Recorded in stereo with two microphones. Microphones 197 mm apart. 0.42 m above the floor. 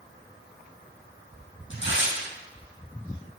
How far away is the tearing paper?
About 3 m.